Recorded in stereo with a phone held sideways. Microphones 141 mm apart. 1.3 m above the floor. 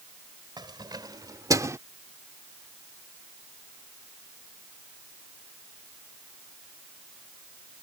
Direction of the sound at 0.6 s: 30° right (ahead or behind).